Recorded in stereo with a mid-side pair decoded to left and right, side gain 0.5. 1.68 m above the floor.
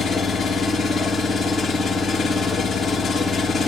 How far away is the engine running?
About 2.5 m.